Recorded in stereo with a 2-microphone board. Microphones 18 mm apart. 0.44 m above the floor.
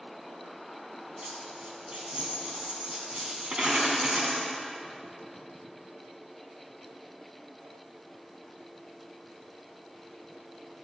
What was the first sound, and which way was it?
A dropped coin, 65° right (ahead or behind).